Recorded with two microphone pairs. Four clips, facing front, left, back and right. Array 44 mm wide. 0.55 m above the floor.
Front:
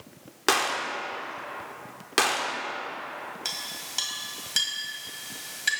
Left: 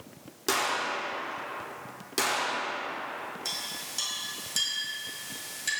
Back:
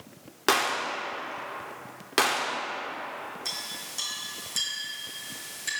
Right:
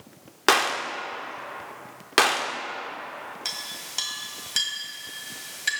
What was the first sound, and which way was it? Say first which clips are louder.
A gunshot: right 6 dB, even; 80° right.